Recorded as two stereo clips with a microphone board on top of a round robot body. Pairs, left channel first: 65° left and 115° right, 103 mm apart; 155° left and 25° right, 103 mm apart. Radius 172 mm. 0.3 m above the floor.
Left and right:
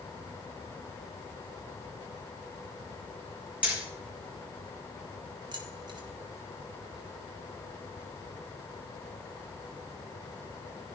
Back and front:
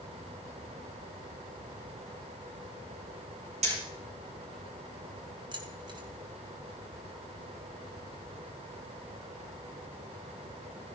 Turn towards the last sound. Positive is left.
turn(degrees=-65)